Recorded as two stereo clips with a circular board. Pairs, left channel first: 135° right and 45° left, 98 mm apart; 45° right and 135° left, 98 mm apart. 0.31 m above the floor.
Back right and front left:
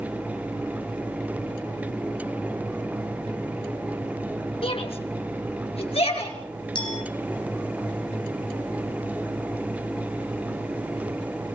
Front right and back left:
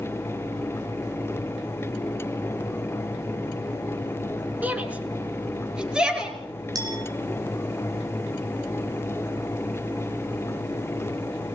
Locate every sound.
4.6 s a shout: 150° right, 4 m; by 6.4 s 140° right, 6 m
6.8 s a clink: 175° right, 4 m